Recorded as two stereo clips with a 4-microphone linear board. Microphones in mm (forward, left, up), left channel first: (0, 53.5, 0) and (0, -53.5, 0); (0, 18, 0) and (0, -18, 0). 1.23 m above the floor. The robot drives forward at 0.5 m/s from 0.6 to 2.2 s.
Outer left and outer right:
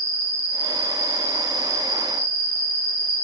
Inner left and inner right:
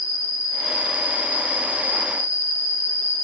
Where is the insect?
30° right (ahead or behind), 2.5 m; by 3.2 s 40° right (ahead or behind), 2 m.